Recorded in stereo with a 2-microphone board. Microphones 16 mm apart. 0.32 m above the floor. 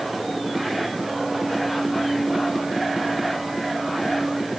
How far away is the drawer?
I don't hear a drawer.